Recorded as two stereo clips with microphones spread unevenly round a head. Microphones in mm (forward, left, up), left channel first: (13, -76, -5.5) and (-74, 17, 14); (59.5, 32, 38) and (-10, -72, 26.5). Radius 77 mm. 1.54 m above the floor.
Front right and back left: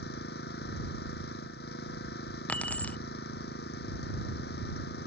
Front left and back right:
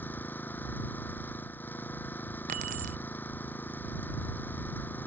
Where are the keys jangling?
130° right.